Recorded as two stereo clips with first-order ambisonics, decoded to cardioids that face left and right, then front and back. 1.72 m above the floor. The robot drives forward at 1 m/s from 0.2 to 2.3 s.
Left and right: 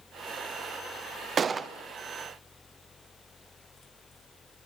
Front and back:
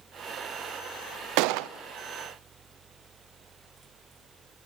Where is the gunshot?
155° right, 0.8 m; by 1.7 s 165° right, 1.1 m.